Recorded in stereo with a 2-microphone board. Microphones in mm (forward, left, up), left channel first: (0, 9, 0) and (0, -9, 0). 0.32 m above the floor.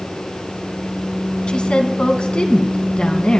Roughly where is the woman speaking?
Left.